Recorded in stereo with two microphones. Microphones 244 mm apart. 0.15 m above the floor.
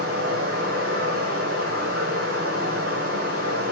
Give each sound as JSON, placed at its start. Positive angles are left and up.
{"t": 0.0, "sound": "running water", "side_deg": -70, "distance_m": 1.0}